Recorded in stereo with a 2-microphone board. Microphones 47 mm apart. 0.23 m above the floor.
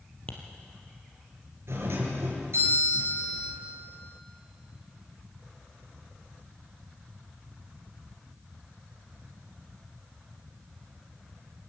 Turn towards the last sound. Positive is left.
turn(degrees=-65)  # may be behind; listen again after turning